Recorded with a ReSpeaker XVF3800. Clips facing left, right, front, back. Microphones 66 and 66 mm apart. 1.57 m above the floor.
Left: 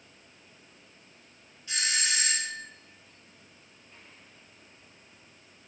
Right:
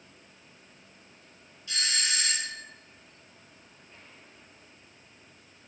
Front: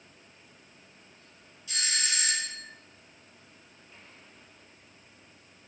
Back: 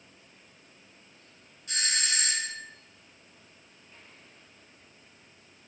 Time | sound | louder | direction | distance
1.7 | a doorbell | left 1 dB, back 1 dB | 150° left | 1.0 m